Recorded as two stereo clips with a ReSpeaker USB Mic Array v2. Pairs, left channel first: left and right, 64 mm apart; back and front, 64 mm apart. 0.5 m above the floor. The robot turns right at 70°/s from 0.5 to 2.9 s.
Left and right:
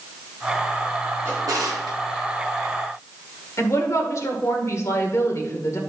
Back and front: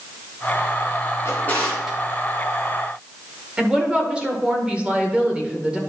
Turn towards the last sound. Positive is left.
turn(degrees=70)